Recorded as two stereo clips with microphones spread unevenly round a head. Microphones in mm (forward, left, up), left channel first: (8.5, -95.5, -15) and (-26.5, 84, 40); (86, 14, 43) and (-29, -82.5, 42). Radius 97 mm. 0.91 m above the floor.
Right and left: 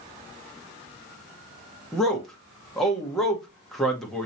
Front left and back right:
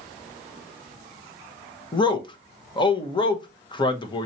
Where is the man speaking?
10° right, 1.1 m.